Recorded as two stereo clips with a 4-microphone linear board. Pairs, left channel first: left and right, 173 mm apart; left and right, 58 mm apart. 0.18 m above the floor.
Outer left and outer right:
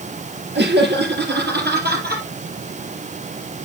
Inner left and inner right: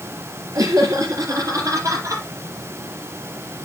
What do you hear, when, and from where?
0.6 s laughter: 70° right (ahead or behind), 4 m; by 2.2 s 60° right (ahead or behind), 5 m